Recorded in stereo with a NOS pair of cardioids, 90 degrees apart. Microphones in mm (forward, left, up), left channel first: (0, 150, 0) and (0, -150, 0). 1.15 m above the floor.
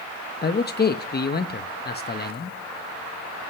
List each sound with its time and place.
0.4 s a man speaking: 35° left, 1.0 m